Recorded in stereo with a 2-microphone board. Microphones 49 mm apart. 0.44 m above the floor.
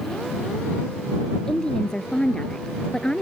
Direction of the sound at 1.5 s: 15° left (ahead or behind).